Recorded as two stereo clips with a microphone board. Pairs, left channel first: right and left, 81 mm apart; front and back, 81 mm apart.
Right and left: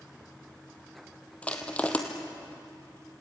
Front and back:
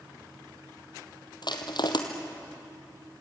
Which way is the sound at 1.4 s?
15° right.